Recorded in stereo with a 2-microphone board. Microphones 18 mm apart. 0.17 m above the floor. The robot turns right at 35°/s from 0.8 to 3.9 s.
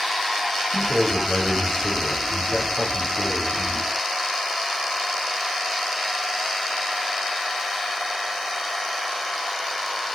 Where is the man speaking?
20° left, 8.5 m; by 3.9 s 130° left, 8.5 m.